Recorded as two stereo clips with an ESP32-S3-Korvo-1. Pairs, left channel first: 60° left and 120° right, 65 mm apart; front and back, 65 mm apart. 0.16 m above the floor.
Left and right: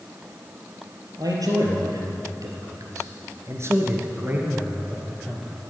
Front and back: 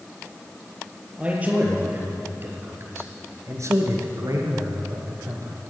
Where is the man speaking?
110° right, 3.5 m; by 5.6 s 155° left, 3 m.